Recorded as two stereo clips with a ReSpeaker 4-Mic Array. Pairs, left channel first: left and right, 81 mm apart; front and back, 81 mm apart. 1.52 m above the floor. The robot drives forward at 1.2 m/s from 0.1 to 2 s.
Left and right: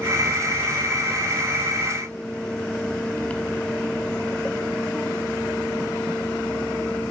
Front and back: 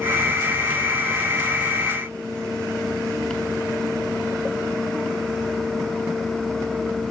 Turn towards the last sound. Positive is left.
No sound to turn to.